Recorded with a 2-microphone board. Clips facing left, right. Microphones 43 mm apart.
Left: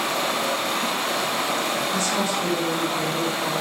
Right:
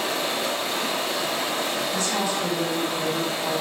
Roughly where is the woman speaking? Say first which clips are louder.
Left 2 dB; left.